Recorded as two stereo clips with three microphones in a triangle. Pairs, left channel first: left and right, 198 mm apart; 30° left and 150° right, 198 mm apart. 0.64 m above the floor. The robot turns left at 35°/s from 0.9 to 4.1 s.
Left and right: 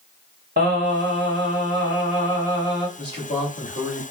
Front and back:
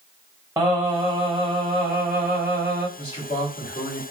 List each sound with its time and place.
0.6 s singing: 75° right, 1.6 m; by 2.9 s 145° right, 1.6 m
3.0 s a man speaking: 90° left, 0.9 m; by 4.0 s 55° left, 0.9 m